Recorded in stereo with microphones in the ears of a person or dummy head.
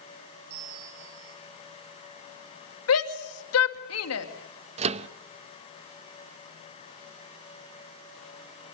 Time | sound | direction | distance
0.5 | a bell | 65° right (ahead or behind) | 7 m
2.9 | a shout | 75° left (ahead or behind) | 2.5 m
4.8 | a microwave | 40° right (ahead or behind) | 0.8 m